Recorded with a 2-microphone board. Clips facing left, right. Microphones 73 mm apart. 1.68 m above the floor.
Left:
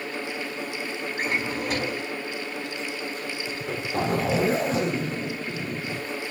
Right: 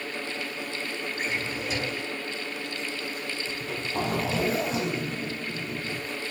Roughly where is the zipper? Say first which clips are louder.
Left 4 dB; left.